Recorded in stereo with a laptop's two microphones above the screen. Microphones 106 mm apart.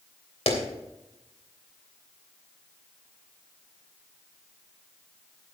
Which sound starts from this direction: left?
A clap, at 0.5 s.